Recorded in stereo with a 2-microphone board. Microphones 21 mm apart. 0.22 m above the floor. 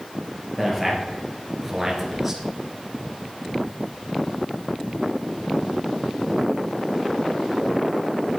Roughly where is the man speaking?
Centre.